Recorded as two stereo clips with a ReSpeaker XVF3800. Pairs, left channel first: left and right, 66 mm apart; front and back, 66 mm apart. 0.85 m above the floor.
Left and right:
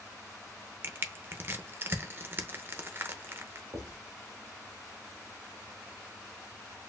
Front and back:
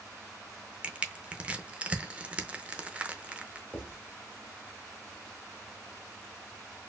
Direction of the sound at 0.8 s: 120° right.